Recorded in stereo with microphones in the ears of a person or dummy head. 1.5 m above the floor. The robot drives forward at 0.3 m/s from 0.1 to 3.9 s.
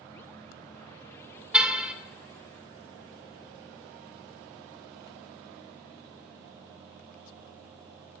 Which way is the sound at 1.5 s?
10° right (ahead or behind).